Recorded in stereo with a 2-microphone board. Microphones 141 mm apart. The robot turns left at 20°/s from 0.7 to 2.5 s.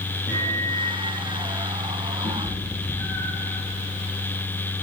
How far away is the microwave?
About 8 m.